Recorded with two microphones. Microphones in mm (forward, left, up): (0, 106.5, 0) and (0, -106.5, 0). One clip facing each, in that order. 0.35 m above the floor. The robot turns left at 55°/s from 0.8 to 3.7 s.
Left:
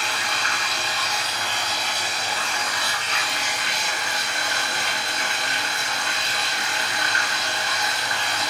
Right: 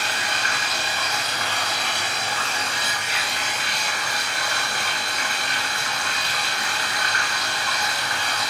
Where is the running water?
45° right, 1.4 m; by 8.5 s 160° left, 1.4 m.